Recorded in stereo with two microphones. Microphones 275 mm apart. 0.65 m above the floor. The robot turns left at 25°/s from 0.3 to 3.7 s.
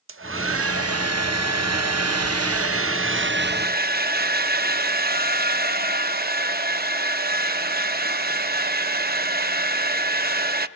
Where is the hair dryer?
55° right, 0.6 m; by 10.7 s 140° right, 0.6 m.